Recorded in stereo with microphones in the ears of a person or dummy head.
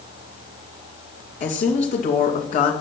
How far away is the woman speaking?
About 2 m.